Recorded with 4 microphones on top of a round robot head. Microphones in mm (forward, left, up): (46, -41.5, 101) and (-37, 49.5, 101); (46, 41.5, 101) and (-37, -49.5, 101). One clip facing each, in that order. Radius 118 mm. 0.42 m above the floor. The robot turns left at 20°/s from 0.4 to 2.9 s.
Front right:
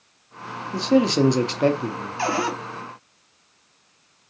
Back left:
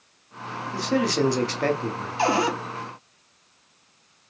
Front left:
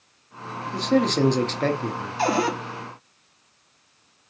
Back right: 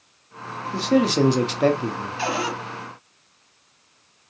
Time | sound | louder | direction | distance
0.7 | a man speaking | front right 5 dB, back right 2 dB | 55° right | 0.7 m
2.2 | a cupboard door | back left 2 dB, front left 4 dB | 70° left | 0.8 m